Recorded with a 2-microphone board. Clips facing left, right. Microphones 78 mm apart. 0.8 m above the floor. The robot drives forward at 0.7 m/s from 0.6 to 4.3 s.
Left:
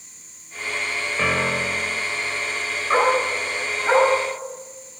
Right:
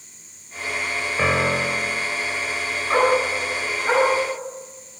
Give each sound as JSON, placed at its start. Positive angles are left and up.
{"t": 1.2, "sound": "a piano", "side_deg": -15, "distance_m": 0.6}
{"t": 2.9, "sound": "a dog barking", "side_deg": 0, "distance_m": 3.5}